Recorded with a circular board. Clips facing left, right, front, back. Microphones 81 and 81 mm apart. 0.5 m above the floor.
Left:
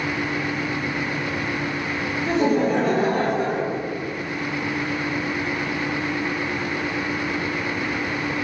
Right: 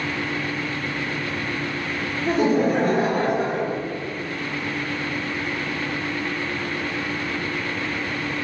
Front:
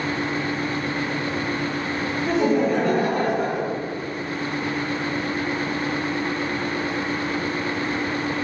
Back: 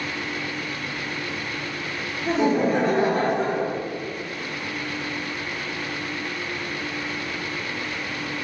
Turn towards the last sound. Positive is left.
turn(degrees=-130)